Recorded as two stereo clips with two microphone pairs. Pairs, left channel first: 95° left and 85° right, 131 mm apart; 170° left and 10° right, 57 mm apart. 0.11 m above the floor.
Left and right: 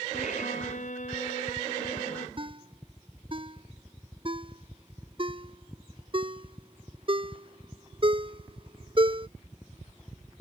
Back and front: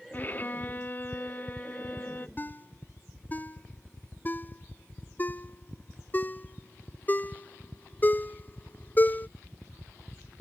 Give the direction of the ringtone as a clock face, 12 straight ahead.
4 o'clock.